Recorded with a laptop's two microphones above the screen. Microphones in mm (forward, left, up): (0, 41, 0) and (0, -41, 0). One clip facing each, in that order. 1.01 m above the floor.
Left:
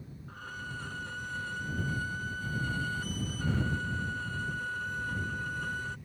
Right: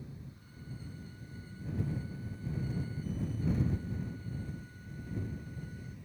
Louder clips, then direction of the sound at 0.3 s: Left 9 dB; 85° left.